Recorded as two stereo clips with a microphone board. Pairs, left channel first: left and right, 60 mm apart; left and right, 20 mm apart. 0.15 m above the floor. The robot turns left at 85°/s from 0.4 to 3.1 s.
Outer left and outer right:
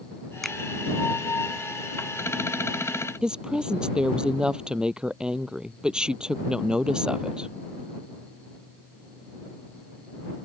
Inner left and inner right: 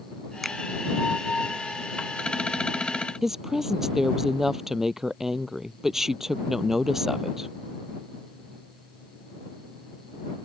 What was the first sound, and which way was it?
A finger snap, 5° left (ahead or behind).